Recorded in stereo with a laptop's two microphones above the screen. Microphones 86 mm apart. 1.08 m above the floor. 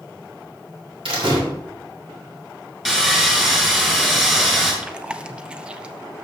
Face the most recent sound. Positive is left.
turn(degrees=-15)  # may be behind; listen again after turning